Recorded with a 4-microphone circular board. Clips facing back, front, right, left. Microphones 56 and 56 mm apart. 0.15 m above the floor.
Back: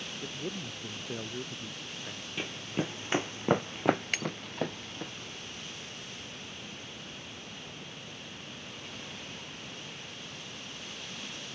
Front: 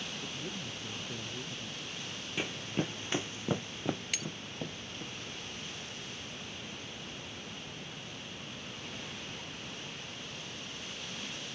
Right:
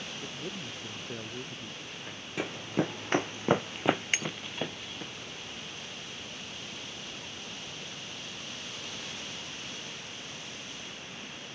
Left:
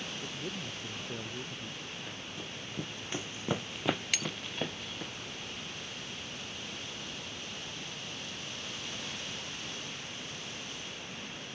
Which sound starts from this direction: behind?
A man speaking, at 0.2 s.